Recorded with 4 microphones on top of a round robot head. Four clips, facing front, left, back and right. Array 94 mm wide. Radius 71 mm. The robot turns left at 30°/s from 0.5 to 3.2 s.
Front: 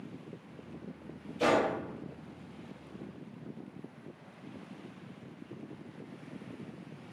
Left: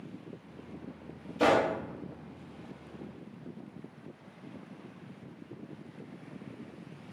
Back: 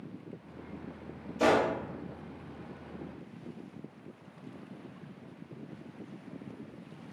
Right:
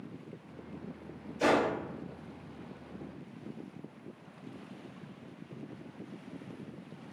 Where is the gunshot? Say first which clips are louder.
Left 2 dB, back 2 dB; 115° left, 0.5 m; by 1.7 s 105° left, 0.5 m.